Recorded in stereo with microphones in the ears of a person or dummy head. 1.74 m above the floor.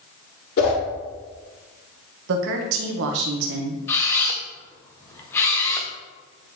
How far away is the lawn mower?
I don't hear a lawn mower.